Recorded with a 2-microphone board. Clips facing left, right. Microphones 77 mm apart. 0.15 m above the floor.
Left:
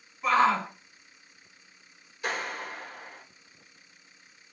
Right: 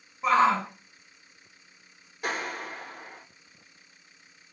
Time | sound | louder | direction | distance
0.2 | a shout | right 1 dB | 25° right (ahead or behind) | 1.5 m
2.2 | a clap | right 1 dB | 55° right (ahead or behind) | 2.5 m